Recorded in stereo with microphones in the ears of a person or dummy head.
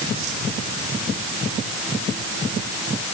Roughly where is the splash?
I don't hear a splash.